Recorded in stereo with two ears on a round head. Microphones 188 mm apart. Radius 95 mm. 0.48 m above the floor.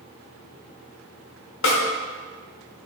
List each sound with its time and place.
1.6 s a snare drum: 65° left (ahead or behind), 0.7 m